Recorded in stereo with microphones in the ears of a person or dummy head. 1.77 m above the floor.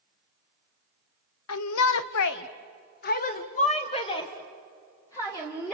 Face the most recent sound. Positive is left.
turn(degrees=10)  # may be behind; listen again after turning